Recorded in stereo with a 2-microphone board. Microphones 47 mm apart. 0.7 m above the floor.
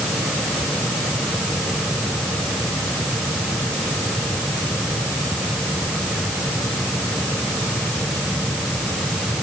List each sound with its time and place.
Only background noise.